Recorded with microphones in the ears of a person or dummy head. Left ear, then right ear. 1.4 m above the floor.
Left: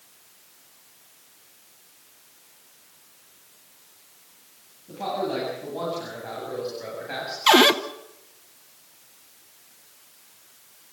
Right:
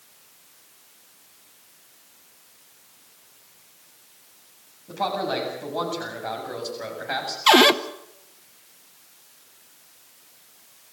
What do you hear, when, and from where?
4.9 s a man speaking: 55° right (ahead or behind), 8 m; by 7.4 s 35° right (ahead or behind), 7.5 m
7.5 s a cupboard door: 5° right (ahead or behind), 0.9 m